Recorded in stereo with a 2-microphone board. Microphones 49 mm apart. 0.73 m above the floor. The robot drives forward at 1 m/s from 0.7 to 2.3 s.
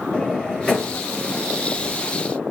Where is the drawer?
20° left (ahead or behind), 7 m.